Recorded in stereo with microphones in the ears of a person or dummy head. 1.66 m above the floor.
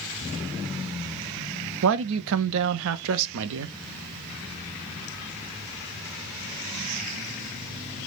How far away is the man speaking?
About 0.7 m.